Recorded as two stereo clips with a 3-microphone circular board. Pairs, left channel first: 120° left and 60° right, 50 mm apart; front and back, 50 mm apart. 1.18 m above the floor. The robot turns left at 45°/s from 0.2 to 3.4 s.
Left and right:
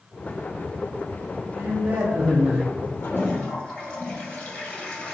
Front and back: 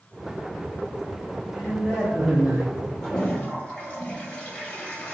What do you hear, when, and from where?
1.6 s a man speaking: 75° right, 0.7 m; by 2.8 s 125° right, 0.7 m
3.0 s a toilet flushing: 80° left, 1.3 m; by 5.2 s 60° left, 1.3 m